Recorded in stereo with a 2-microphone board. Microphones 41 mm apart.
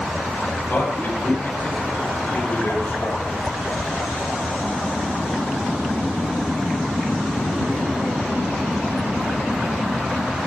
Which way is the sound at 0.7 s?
60° left (ahead or behind).